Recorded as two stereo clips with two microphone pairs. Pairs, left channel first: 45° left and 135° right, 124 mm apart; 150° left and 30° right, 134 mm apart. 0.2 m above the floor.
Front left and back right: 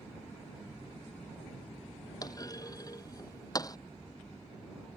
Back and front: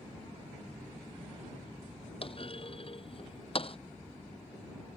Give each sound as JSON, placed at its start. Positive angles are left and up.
{"t": 2.2, "sound": "a clunk", "azimuth_deg": 105}